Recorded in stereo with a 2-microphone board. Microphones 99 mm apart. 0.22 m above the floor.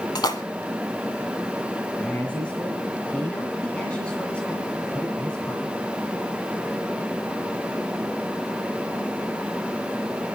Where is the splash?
45° left (ahead or behind), 1.4 m.